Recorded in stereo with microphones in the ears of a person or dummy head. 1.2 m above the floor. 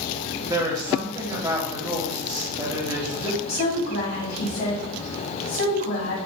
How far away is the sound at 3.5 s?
About 1.7 m.